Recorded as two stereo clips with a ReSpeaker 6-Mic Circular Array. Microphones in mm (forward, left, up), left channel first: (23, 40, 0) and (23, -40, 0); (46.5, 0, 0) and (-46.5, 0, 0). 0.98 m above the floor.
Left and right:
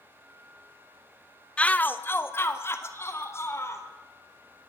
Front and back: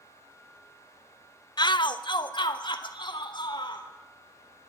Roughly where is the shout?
Ahead.